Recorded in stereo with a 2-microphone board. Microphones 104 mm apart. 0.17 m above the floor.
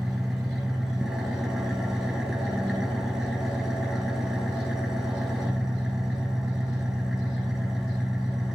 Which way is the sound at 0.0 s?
5° right (ahead or behind).